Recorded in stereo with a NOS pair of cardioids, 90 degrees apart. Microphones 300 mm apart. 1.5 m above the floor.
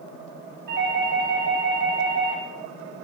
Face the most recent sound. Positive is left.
turn(degrees=-40)